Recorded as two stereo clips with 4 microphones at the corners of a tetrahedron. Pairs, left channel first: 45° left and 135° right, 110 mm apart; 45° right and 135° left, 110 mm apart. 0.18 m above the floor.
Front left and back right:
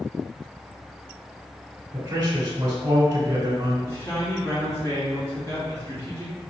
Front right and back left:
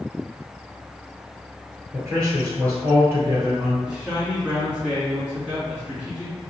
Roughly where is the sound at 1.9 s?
Behind.